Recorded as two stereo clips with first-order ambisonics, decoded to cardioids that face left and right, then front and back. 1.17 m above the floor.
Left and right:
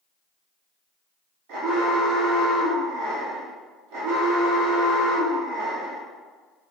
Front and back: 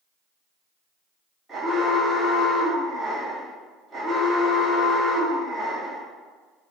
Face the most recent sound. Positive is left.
turn(degrees=-95)